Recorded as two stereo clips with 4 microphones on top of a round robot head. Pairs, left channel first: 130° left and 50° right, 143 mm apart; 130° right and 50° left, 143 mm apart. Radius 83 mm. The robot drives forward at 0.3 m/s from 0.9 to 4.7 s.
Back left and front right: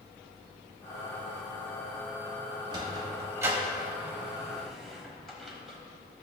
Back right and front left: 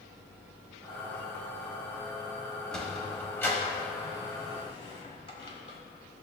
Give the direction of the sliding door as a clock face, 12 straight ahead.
2 o'clock.